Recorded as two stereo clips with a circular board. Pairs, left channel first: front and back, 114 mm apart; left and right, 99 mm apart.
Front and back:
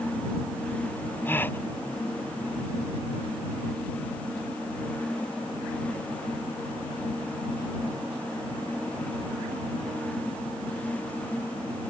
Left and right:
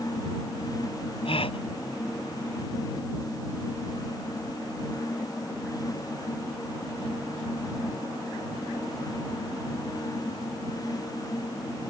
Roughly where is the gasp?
Left.